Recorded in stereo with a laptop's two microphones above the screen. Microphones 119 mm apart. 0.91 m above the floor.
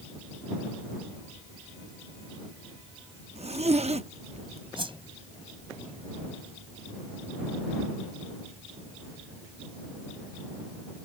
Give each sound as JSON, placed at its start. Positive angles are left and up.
{"t": 3.4, "sound": "a zipper", "side_deg": -60}
{"t": 4.8, "sound": "a whoosh", "side_deg": -45}